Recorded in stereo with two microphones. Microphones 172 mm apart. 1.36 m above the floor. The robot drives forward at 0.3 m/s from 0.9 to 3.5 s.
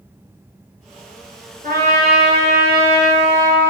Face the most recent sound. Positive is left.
turn(degrees=-55)  # may be behind; listen again after turning